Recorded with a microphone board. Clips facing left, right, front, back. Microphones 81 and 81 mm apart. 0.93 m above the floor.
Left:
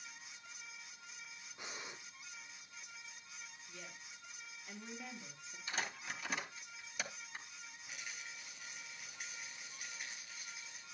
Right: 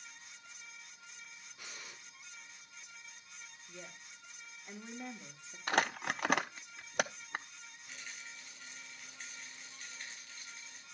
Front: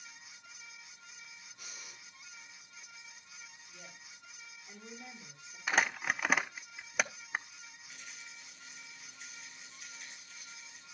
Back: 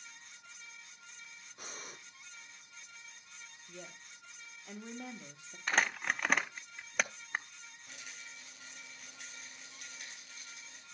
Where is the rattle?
170° left, 4 m.